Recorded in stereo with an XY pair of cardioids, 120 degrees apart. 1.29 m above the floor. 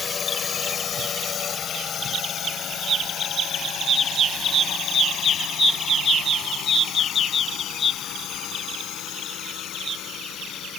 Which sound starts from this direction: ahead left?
A drone, at 0.0 s.